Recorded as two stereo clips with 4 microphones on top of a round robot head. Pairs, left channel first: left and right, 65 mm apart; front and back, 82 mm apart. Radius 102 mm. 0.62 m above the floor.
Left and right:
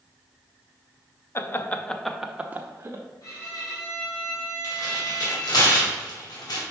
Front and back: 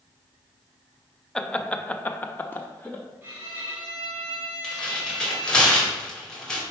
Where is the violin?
115° left, 2.5 m.